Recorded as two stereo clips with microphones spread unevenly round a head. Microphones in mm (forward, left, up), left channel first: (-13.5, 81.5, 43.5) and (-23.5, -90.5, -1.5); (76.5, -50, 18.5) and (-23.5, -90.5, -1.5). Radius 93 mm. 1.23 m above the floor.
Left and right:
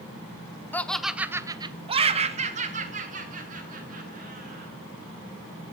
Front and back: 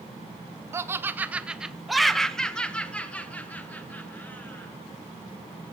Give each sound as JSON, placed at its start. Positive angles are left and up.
{"t": 0.7, "sound": "laughter", "azimuth_deg": -175, "distance_m": 0.6}